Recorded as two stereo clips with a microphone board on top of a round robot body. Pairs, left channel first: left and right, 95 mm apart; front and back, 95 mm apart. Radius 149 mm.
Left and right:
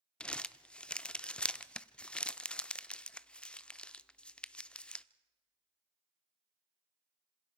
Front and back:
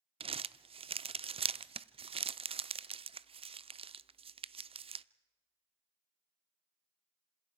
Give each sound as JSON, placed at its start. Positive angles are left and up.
{"t": 0.2, "sound": "crumpling", "azimuth_deg": 170, "distance_m": 0.5}